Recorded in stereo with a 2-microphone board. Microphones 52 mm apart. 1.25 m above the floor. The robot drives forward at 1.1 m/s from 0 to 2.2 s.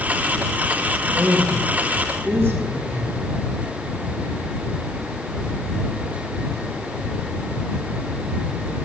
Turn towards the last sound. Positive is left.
turn(degrees=-50)  # may be behind; listen again after turning